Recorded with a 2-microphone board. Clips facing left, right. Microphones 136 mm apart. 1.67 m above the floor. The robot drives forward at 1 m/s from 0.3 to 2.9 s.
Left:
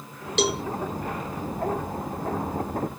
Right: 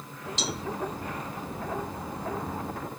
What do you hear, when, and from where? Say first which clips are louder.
0.4 s a cowbell: left 11 dB; 70° left (ahead or behind)